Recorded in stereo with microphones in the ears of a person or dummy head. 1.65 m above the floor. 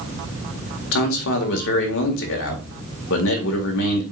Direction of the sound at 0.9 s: 70° left (ahead or behind).